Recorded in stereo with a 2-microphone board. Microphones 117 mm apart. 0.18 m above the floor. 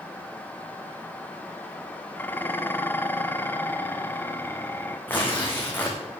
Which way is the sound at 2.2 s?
20° left (ahead or behind).